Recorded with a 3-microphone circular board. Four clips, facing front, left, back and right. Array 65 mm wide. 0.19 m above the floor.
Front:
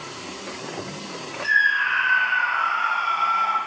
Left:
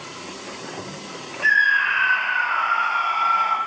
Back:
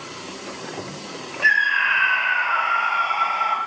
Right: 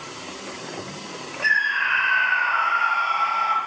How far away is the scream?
About 4 m.